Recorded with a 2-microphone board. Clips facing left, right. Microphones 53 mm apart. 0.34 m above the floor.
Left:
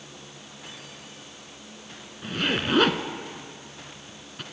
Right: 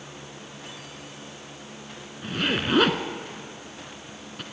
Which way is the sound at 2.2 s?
Centre (ahead or behind).